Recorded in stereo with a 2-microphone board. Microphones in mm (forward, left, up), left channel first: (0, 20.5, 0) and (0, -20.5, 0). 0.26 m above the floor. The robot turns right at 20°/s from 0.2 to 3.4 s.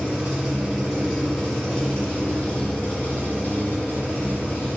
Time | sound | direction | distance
0.0 | an engine running | 15° right | 1.1 m